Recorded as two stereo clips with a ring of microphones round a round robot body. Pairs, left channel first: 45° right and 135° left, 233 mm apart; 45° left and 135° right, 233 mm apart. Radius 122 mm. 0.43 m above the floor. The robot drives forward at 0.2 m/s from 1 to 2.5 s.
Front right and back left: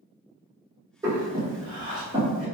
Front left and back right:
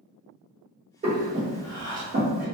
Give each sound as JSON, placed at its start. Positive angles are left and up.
{"t": 1.0, "sound": "breathing", "azimuth_deg": -160, "distance_m": 1.0}